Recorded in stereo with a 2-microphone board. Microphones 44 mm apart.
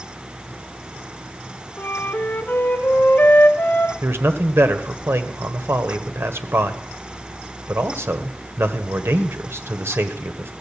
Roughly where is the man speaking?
Right.